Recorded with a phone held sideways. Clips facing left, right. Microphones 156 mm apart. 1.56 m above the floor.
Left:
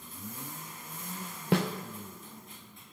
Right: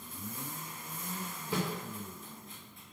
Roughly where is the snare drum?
Left.